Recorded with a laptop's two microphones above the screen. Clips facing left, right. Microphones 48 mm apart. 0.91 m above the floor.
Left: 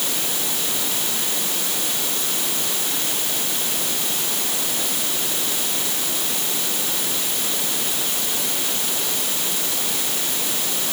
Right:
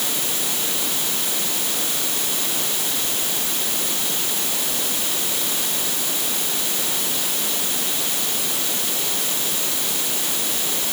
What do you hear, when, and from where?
Only background noise.